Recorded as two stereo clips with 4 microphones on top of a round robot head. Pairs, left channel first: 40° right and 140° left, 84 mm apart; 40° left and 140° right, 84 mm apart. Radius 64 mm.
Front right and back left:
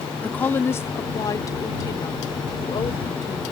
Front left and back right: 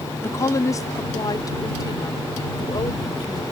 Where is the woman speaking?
25° left; by 3.4 s 5° right.